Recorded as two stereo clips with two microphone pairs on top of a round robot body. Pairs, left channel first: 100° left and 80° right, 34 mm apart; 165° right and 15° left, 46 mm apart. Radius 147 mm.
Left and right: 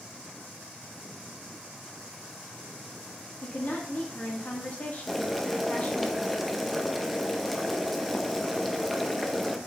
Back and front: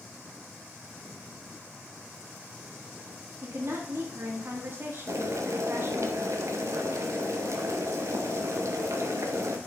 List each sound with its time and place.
3.4 s a woman speaking: 50° left, 1.5 m
5.1 s boiling: 10° left, 0.9 m